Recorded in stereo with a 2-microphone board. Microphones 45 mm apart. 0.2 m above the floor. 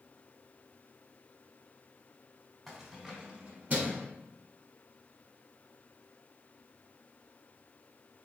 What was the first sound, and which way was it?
Keys jangling, 5° right (ahead or behind).